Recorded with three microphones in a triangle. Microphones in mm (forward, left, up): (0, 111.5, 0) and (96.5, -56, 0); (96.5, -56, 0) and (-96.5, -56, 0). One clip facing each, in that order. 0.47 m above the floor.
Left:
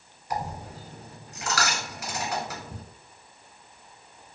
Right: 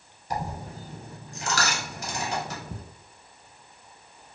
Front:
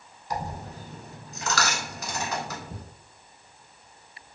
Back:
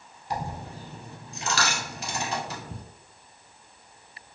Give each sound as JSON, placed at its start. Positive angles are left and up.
{"t": 0.3, "sound": "a dropped coin", "azimuth_deg": -120, "distance_m": 1.0}